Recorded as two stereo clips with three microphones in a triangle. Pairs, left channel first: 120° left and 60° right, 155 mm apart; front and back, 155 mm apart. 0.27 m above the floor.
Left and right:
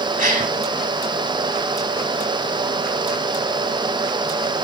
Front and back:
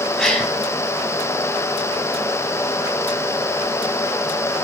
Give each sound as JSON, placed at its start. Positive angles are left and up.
{"t": 0.2, "sound": "a gasp", "azimuth_deg": -85, "distance_m": 6.0}